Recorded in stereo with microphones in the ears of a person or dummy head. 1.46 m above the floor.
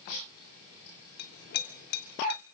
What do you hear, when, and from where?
1.2 s a clink: 65° left (ahead or behind), 2.5 m